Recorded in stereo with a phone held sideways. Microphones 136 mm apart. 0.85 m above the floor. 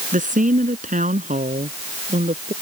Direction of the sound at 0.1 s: 75° right (ahead or behind).